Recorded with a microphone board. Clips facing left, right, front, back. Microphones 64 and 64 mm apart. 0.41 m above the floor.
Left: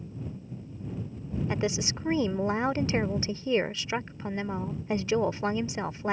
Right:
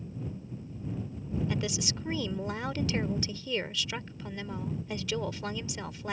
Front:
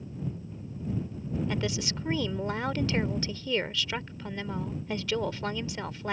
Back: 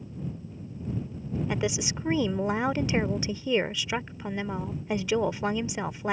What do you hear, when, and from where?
1.5 s a woman speaking: 115° left